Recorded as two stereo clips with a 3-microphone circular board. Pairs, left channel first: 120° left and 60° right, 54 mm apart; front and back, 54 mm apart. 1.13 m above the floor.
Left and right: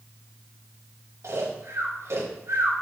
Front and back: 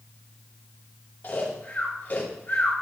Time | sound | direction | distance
1.2 | snoring | 50° right | 3 m